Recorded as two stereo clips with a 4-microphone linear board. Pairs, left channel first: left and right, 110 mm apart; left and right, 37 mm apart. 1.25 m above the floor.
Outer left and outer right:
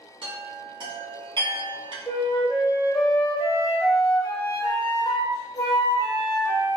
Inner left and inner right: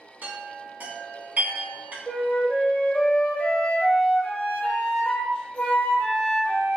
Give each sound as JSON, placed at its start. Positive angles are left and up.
{"t": 0.2, "sound": "a chime", "side_deg": -50, "distance_m": 1.0}
{"t": 2.1, "sound": "a flute", "side_deg": 35, "distance_m": 0.8}